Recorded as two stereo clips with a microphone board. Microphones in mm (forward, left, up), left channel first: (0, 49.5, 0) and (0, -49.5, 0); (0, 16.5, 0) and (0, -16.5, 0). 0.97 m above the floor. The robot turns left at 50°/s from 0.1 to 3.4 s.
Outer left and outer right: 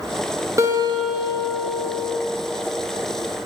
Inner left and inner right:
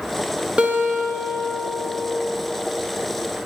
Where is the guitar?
30° right, 0.6 m; by 2.2 s 110° right, 0.6 m.